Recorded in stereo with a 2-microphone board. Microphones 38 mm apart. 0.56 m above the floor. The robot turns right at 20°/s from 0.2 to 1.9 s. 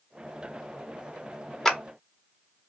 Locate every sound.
1.6 s a clap: 5° left (ahead or behind), 0.8 m; by 1.8 s 10° left (ahead or behind), 0.8 m